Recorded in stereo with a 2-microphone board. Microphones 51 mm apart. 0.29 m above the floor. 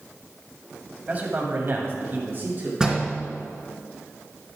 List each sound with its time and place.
1.1 s a man speaking: 30° right (ahead or behind), 1.5 m; by 2.7 s 40° right (ahead or behind), 2.5 m
2.8 s a door slam: 10° right (ahead or behind), 2.5 m